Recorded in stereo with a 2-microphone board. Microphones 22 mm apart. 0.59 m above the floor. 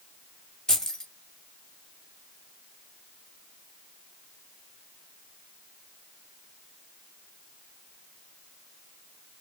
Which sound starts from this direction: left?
Keys jangling, at 0.7 s.